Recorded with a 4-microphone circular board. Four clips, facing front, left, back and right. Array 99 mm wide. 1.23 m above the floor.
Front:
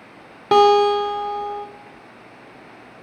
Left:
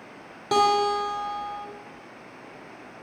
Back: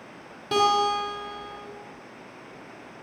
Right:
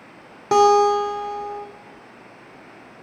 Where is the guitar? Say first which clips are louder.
Right 7 dB, front 9 dB; 20° right, 2.5 m.